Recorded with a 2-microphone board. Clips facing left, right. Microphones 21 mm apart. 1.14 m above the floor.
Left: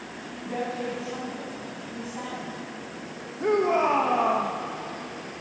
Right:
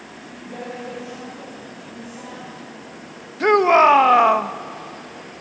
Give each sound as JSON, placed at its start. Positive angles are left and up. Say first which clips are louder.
{"t": 0.4, "sound": "a woman speaking", "louder": "left 2 dB", "side_deg": 30, "distance_m": 8.5}
{"t": 3.4, "sound": "a shout", "louder": "right 9 dB", "side_deg": -70, "distance_m": 1.5}